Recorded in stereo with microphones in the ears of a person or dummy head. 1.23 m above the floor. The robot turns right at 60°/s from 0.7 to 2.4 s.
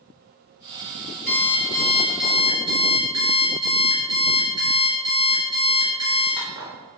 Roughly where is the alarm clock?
Behind left.